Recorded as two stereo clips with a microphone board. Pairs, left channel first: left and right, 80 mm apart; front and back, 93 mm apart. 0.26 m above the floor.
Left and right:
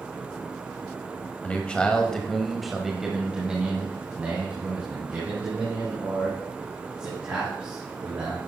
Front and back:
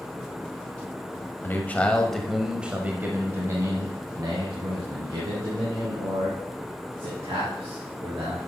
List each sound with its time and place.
1.4 s a man speaking: 35° left, 1.1 m; by 8.4 s 155° right, 4 m